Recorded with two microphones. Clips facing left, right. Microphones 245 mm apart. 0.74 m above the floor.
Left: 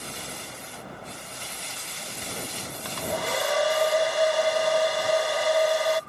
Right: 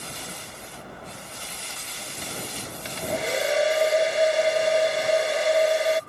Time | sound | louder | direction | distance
2.9 | a hair dryer | right 2 dB | 25° right (ahead or behind) | ?